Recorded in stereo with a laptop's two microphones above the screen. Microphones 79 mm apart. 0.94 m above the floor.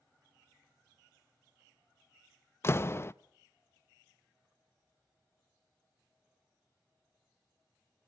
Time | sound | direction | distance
2.6 | a door slam | 35° left (ahead or behind) | 0.6 m